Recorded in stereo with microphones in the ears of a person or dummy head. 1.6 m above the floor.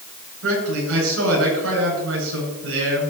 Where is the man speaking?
70° right (ahead or behind), 9 m.